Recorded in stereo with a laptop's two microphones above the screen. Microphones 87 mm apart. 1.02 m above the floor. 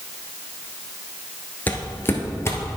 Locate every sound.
1.7 s footsteps: 20° left (ahead or behind), 1.0 m; by 2.8 s 35° left (ahead or behind), 1.4 m